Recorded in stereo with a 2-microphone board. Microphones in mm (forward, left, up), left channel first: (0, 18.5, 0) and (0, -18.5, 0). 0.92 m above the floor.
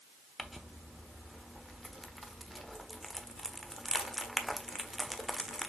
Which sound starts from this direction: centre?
Crumpling, at 0.4 s.